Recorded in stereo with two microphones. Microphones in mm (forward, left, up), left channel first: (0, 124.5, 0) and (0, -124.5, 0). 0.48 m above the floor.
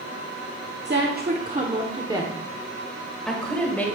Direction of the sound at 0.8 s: 45° right (ahead or behind).